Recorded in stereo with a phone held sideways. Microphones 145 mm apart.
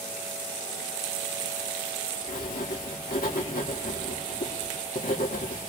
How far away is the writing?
About 1.8 m.